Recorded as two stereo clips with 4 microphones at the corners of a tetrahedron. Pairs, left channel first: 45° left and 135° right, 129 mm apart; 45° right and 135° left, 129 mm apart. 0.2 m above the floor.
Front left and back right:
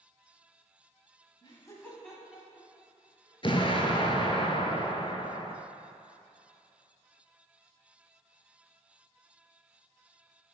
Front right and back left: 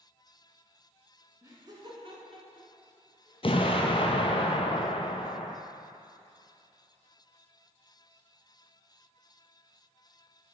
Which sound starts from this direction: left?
Laughter, at 1.4 s.